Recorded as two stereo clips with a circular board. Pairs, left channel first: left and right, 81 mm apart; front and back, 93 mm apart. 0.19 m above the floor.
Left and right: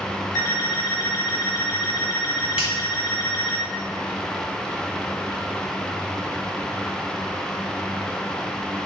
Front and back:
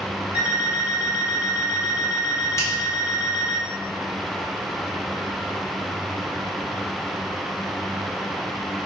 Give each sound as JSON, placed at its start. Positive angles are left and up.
{"t": 0.3, "sound": "an alarm clock", "azimuth_deg": 115, "distance_m": 1.0}
{"t": 2.6, "sound": "a finger snap", "azimuth_deg": -25, "distance_m": 1.2}